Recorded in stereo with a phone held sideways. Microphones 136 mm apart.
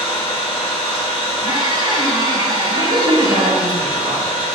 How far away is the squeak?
About 0.5 m.